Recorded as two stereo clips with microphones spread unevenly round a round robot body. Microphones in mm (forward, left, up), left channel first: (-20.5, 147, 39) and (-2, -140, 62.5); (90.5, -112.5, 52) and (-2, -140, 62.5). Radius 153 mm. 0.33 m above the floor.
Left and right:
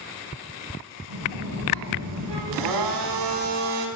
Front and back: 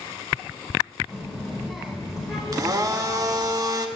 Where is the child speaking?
70° right, 1.4 m.